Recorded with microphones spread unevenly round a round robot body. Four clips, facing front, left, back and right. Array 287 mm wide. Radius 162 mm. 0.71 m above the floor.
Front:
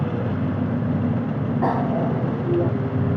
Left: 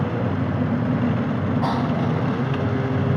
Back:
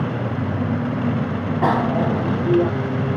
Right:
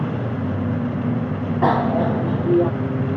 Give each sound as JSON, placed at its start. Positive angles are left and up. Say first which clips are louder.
{"t": 1.6, "sound": "a bicycle bell", "louder": "right 8 dB, back 3 dB", "azimuth_deg": -135}